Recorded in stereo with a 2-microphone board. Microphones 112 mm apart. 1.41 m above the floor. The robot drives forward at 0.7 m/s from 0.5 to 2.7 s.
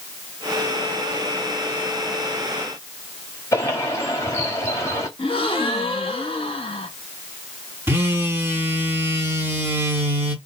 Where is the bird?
25° left (ahead or behind), 1.6 m.